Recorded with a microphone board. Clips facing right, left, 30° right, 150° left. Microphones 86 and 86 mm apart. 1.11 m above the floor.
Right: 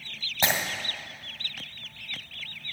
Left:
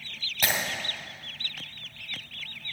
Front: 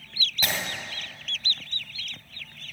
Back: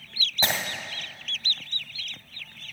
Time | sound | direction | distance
0.4 | breaking glass | 150° right | 2.0 m